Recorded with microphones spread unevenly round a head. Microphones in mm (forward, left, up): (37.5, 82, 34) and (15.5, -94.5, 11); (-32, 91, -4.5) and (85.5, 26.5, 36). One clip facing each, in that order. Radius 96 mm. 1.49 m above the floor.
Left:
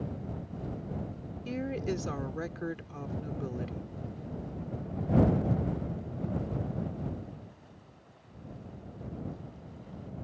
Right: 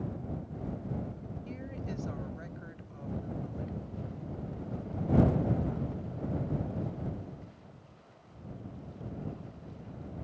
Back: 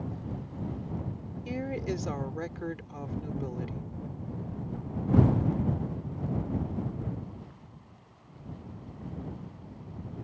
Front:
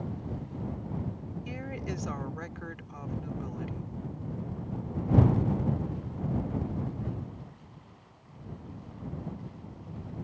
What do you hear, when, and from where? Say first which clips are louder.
1.4 s a woman speaking: left 10 dB, back 6 dB; 95° left